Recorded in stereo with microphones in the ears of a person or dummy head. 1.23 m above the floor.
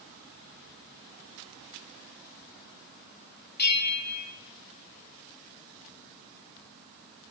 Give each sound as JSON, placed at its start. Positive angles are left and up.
{"t": 3.6, "sound": "a bell", "side_deg": 55, "distance_m": 2.0}